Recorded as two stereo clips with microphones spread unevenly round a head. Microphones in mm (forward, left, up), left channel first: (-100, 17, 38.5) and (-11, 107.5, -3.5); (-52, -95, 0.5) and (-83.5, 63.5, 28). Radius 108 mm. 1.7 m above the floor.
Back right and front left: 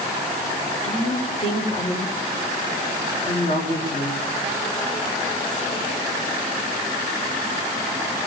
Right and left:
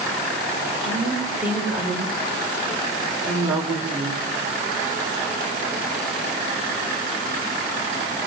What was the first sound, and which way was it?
A woman speaking, 175° right.